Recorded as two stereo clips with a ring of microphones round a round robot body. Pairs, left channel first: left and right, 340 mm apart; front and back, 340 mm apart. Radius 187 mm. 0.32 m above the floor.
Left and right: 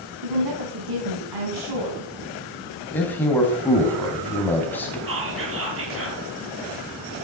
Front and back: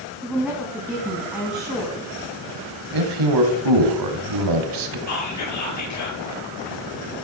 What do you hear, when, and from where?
0.2 s a woman speaking: 90° right, 3.5 m
2.9 s a man speaking: 175° left, 3 m
5.1 s whispering: 40° right, 8 m